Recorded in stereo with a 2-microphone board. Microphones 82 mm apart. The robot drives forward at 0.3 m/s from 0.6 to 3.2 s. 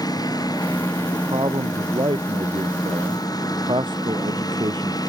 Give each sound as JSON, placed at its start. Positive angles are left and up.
{"t": 0.0, "sound": "a lawn mower", "side_deg": 50}
{"t": 1.1, "sound": "a man speaking", "side_deg": -85}